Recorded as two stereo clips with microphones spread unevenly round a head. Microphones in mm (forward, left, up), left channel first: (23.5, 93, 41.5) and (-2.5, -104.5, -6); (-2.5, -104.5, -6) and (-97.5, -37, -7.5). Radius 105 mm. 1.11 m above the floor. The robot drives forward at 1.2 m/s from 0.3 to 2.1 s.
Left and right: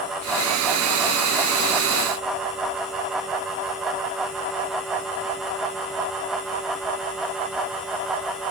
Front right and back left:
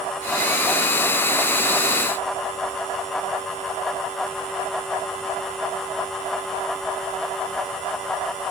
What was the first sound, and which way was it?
Only background noise.